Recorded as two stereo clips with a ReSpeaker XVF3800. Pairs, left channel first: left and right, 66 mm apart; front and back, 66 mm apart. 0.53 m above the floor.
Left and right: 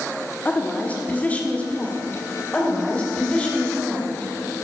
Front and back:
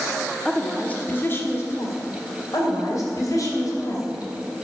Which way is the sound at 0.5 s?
75° left.